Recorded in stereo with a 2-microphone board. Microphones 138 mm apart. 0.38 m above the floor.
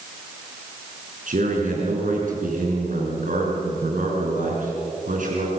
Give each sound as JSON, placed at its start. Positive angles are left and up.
{"t": 1.3, "sound": "a man speaking", "side_deg": -75, "distance_m": 6.0}